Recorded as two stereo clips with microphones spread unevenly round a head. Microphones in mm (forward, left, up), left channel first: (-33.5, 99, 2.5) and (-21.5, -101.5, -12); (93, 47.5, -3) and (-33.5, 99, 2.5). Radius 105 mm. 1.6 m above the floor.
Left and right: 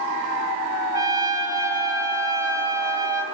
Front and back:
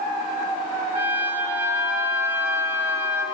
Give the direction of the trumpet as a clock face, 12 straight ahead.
5 o'clock.